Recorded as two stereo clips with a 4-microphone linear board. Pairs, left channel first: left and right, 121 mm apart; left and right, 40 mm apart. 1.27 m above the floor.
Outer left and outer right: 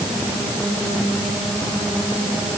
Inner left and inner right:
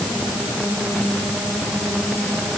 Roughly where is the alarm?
No alarm in this recording.